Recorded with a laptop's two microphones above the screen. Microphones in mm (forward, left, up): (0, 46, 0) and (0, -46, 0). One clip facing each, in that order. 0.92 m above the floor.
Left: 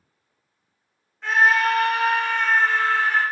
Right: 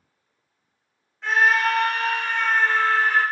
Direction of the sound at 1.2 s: Centre (ahead or behind).